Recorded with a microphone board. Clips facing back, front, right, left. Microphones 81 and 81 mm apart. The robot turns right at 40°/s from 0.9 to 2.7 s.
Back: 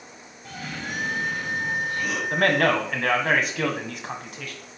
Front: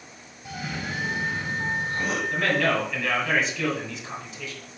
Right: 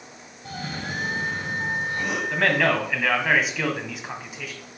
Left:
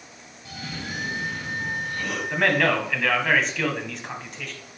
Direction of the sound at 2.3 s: 175° left.